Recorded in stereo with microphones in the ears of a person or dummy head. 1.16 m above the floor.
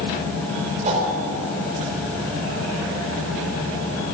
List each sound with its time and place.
0.8 s a whoosh: 35° right (ahead or behind), 4 m